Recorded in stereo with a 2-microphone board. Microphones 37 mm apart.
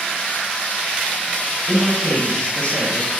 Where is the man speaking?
40° left (ahead or behind), 6 m.